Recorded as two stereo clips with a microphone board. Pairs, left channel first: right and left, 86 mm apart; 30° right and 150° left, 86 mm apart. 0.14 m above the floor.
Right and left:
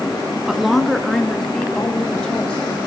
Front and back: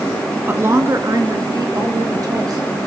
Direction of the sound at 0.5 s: 165° left.